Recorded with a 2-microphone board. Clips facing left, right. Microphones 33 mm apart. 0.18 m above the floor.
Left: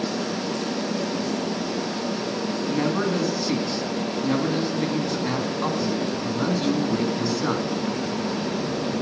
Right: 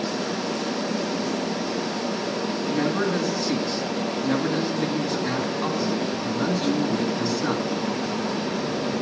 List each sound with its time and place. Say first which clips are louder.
2.7 s a man speaking: even; 10° left (ahead or behind), 1.7 m